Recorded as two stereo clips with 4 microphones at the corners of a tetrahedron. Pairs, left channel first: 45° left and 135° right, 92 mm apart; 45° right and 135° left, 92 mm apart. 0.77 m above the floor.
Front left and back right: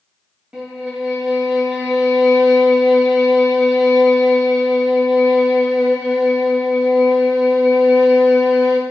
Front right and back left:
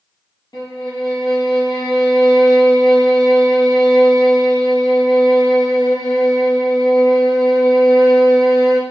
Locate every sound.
0.5 s a violin: 55° right, 1.8 m